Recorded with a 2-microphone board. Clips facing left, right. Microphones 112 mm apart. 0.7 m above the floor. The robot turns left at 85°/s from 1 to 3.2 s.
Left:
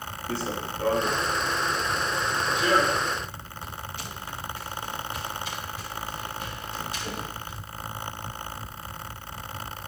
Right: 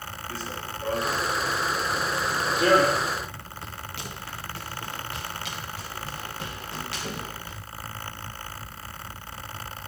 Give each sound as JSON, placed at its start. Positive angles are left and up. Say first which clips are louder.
{"t": 0.3, "sound": "running footsteps", "louder": "left 6 dB", "side_deg": 70, "distance_m": 2.0}